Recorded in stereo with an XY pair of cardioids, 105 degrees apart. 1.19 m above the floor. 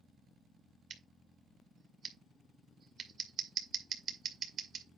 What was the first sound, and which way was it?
Scissors, 65° right.